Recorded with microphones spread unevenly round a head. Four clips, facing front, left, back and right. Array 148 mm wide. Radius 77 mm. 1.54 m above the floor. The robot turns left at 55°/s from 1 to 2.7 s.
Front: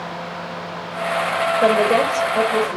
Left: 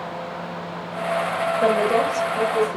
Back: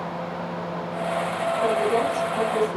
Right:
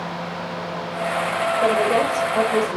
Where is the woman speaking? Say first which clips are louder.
Even, front 6 dB; 10° left, 3.5 m; by 2.8 s 50° right, 3.5 m.